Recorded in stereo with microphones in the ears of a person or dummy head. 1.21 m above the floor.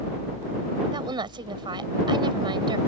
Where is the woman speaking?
25° right (ahead or behind).